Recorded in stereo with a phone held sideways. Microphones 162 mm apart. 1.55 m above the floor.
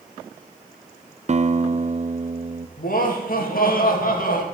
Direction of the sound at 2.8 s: 65° left (ahead or behind).